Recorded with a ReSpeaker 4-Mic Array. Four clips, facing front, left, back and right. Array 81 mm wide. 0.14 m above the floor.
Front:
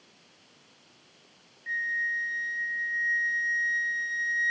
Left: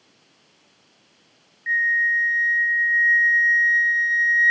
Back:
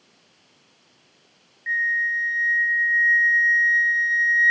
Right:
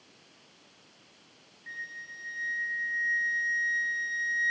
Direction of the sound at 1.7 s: 125° left.